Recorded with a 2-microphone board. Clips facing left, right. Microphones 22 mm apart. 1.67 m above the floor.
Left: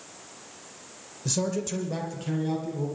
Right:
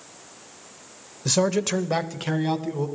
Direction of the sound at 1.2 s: 45° right (ahead or behind).